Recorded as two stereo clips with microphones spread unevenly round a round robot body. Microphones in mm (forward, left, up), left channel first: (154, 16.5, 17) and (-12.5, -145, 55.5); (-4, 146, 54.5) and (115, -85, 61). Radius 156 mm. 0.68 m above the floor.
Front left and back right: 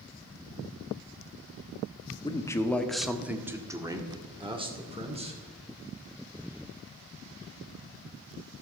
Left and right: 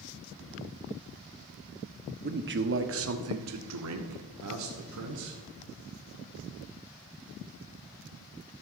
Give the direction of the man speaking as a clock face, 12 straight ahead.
1 o'clock.